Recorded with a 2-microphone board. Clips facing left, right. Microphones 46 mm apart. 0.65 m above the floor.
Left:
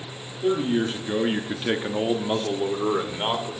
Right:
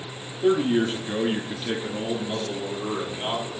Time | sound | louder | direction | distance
0.4 | a man speaking | right 2 dB | 15° right (ahead or behind) | 1.4 m